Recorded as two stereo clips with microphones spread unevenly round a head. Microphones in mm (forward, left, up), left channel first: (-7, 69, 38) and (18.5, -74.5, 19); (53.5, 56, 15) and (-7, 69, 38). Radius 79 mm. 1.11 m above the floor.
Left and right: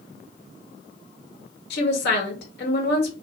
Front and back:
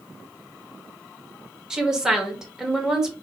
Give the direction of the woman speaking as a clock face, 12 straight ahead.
9 o'clock.